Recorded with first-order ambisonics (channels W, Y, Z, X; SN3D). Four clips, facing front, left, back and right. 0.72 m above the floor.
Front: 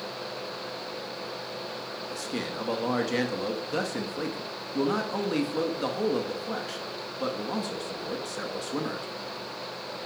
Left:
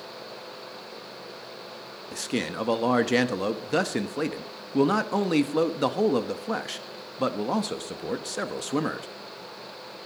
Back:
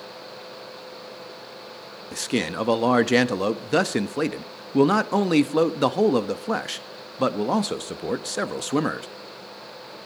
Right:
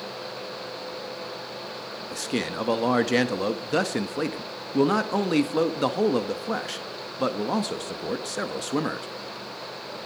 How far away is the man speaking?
About 1.0 m.